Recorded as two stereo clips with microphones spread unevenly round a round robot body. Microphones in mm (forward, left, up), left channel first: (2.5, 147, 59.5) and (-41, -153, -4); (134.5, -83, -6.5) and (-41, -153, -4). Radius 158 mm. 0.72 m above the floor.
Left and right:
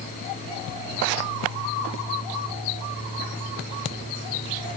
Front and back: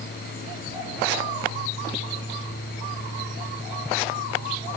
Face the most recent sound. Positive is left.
No sound to turn to.